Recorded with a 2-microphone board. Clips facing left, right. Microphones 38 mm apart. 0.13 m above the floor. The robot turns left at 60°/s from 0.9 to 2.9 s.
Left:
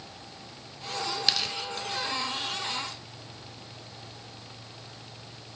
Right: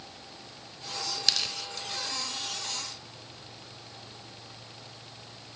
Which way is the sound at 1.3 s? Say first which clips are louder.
Even; 15° left (ahead or behind).